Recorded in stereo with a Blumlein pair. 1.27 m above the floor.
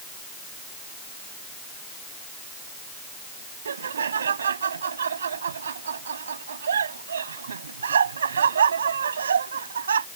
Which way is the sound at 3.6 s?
70° right.